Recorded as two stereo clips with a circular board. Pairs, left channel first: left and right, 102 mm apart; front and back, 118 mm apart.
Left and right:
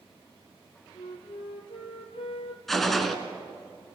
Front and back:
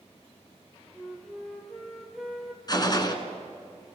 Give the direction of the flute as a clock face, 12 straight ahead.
9 o'clock.